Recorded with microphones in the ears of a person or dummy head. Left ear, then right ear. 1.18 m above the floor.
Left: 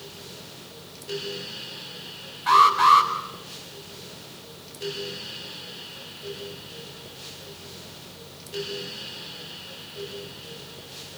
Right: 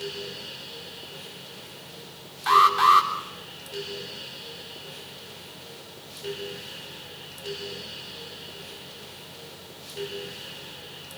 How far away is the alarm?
About 3 m.